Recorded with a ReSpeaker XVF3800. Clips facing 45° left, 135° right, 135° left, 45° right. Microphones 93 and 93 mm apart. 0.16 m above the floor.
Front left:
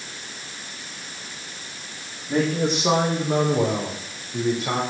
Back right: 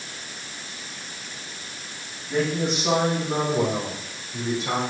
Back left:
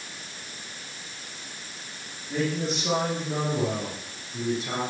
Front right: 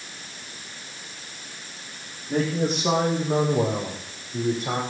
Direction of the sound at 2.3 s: 10° right.